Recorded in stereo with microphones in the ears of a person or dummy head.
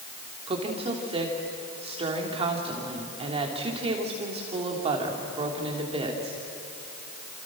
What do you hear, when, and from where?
0.5 s a woman speaking: 30° right (ahead or behind), 3 m